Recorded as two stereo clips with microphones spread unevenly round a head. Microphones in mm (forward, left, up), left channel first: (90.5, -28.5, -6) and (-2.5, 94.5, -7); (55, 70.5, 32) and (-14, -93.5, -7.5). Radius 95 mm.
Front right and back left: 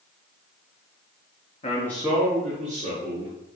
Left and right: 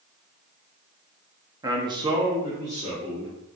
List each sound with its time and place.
1.6 s a man speaking: 75° right, 0.5 m; by 3.3 s 175° left, 1.6 m